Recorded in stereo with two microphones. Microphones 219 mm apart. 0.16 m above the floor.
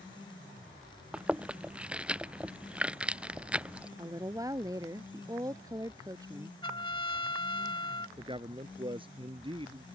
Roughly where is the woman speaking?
Centre.